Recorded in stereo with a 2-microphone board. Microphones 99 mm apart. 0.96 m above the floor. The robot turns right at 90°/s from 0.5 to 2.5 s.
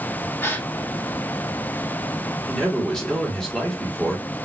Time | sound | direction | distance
0.4 | a gasp | 20° left (ahead or behind) | 0.7 m
2.5 | a man speaking | 10° left (ahead or behind) | 2.0 m